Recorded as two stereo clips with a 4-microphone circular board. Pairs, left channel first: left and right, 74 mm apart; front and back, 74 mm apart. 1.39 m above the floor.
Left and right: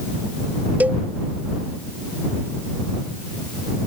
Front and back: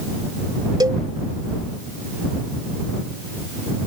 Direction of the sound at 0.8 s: 160° right.